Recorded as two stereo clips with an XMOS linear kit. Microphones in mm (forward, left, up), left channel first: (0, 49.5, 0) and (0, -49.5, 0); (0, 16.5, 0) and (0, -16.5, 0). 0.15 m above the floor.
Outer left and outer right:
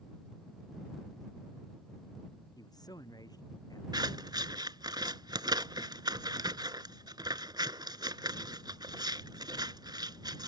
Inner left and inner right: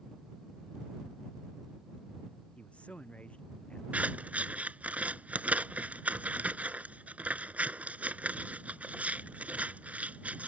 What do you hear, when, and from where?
2.6 s a man speaking: 45° left (ahead or behind)
3.9 s scissors: 50° right (ahead or behind)